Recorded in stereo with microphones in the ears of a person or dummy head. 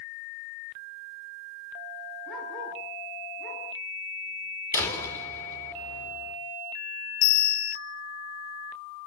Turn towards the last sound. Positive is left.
turn(degrees=70)  # may be behind; listen again after turning